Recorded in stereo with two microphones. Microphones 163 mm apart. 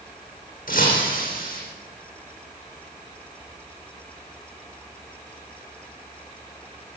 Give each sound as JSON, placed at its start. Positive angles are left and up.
{"t": 0.7, "sound": "breaking glass", "side_deg": 60, "distance_m": 10.0}